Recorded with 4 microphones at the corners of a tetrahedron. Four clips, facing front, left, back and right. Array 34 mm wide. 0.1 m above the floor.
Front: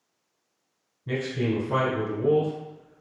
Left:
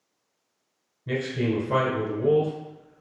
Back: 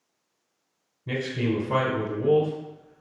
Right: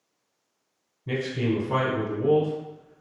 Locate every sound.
1.1 s a man speaking: 115° left, 1.1 m